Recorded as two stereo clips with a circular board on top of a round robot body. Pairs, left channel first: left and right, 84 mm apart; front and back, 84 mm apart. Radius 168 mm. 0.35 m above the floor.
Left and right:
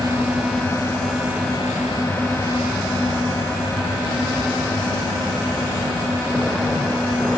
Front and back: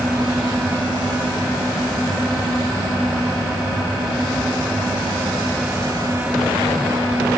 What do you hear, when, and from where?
Only background noise.